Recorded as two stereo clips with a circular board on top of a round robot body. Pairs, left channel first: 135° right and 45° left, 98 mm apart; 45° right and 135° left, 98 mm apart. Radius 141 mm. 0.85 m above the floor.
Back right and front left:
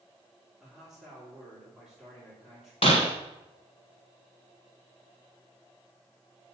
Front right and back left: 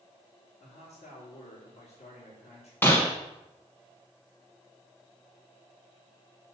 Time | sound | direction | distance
0.6 | a man speaking | 50° right | 4 m
2.8 | breaking glass | 115° right | 0.8 m